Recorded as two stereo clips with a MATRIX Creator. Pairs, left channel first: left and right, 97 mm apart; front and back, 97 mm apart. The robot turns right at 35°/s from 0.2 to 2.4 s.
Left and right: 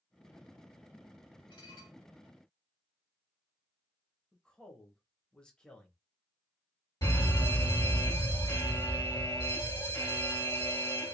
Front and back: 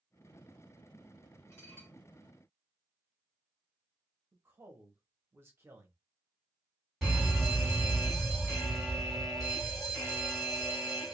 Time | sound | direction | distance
1.5 | dishes clattering | 55° left | 1.3 m
4.3 | a woman speaking | 160° left | 0.8 m
7.0 | a fire alarm | 90° left | 2 m